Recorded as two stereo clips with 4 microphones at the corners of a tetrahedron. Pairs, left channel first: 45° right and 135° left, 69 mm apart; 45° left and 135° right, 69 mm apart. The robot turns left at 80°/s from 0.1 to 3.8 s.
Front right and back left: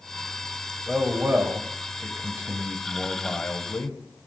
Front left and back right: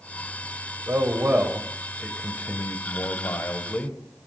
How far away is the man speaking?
About 1.2 m.